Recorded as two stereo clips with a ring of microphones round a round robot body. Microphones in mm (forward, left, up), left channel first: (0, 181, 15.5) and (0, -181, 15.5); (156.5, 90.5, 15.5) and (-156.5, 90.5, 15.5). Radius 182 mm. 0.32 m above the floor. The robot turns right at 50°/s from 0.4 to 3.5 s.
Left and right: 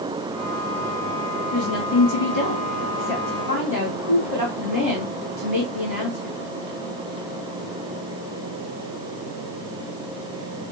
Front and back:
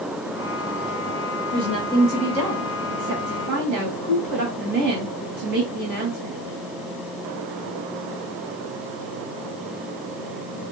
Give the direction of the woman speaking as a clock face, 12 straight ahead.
9 o'clock.